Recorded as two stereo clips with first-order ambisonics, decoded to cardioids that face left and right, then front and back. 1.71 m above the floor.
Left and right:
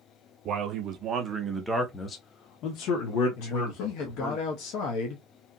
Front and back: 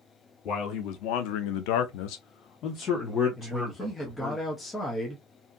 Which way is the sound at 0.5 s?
45° right.